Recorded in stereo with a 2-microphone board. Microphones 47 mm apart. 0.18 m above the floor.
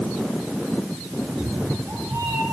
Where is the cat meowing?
65° right (ahead or behind), 6.5 m; by 2.4 s 75° right (ahead or behind), 7.5 m.